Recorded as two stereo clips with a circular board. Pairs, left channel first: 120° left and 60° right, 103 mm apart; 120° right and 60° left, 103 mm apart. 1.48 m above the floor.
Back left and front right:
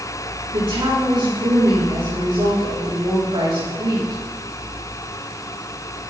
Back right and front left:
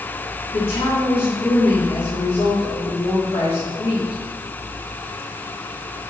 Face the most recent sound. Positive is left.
turn(degrees=-100)